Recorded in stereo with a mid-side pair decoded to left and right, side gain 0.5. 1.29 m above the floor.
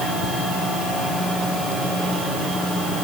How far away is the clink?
No clink in this recording.